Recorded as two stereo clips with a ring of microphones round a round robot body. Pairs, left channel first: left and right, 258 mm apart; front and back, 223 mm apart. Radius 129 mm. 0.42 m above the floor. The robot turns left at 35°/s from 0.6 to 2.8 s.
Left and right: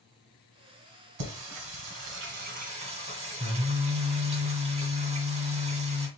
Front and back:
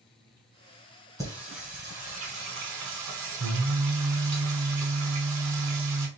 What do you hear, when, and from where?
1.2 s singing: 100° right, 1.4 m; by 6.1 s 160° right, 1.4 m